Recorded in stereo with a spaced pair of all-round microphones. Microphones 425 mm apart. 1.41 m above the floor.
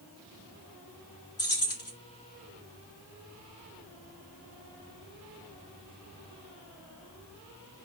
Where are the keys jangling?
35° left (ahead or behind), 1.9 m.